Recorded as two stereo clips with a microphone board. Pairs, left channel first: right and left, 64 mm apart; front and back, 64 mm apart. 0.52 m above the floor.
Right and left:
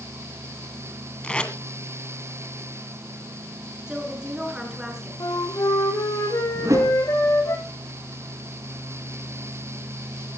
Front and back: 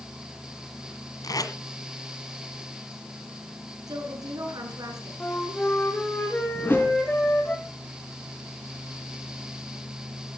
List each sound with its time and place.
1.2 s tape being pulled: 15° right, 1.6 m
3.9 s a woman speaking: 170° left, 6 m
5.2 s a flute: 70° right, 4 m
6.5 s a whoosh: 55° left, 4.5 m